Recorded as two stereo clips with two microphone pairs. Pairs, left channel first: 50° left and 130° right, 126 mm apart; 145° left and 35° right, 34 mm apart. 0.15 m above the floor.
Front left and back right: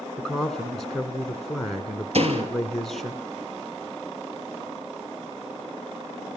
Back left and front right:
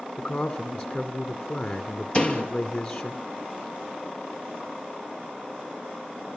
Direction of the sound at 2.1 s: 160° right.